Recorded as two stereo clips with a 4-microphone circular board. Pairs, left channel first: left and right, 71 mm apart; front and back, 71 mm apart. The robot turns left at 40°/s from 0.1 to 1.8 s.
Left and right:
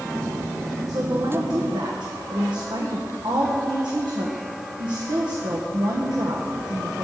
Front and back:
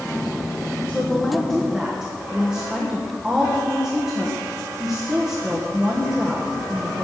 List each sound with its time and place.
0.9 s a woman speaking: 60° right, 1.3 m; by 7.0 s 100° right, 1.3 m